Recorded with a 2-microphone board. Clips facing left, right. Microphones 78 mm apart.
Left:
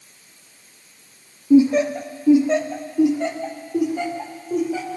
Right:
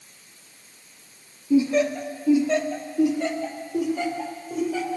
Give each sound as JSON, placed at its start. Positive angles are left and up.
{"t": 1.5, "sound": "laughter", "side_deg": 25, "distance_m": 0.7}